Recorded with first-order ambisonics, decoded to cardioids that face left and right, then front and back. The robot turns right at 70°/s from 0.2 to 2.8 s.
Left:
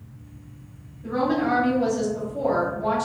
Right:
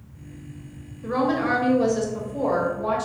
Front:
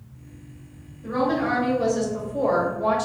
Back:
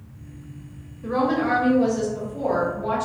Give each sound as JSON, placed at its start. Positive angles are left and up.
{"t": 1.0, "sound": "a woman speaking", "azimuth_deg": -125, "distance_m": 0.9}